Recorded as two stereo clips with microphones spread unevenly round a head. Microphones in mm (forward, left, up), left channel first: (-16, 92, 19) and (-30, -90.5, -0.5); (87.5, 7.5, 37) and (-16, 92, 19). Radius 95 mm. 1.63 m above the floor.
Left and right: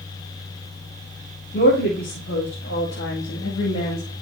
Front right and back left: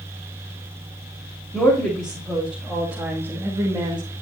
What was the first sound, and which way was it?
A woman speaking, 35° left.